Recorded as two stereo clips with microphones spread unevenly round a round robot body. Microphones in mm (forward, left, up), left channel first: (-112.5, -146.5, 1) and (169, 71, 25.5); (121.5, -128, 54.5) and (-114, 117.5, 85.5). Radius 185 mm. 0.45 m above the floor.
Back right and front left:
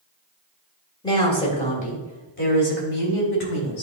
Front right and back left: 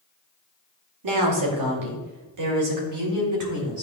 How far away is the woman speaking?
About 2 m.